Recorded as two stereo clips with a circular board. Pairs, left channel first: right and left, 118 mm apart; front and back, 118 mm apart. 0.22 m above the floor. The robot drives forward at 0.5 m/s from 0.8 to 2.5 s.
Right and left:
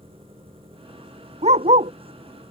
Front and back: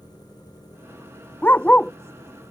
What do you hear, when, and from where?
0.0 s an engine running: 55° left
1.4 s a dog barking: 75° left; by 1.9 s 80° left